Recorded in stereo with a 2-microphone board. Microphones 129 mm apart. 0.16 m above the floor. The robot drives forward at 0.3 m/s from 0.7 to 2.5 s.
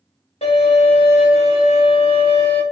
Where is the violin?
60° left (ahead or behind), 1.2 m; by 2.6 s 45° left (ahead or behind), 1.4 m.